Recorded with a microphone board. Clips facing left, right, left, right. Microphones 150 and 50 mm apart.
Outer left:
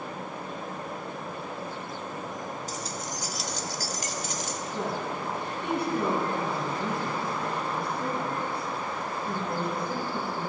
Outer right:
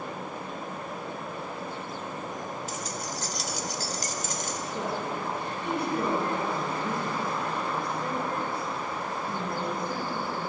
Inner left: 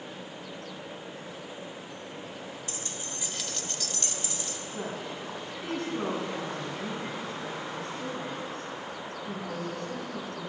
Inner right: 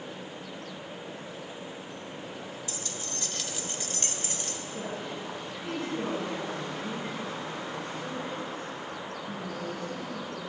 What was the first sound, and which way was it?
Keys jangling, 40° left (ahead or behind).